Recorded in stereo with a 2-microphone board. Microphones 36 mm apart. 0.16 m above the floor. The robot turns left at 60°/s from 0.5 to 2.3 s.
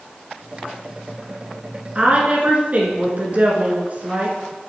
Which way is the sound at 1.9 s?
30° right (ahead or behind).